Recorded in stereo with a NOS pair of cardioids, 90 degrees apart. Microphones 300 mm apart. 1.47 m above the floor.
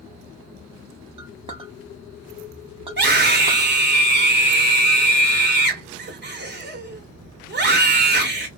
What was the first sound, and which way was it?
A clink, 20° right.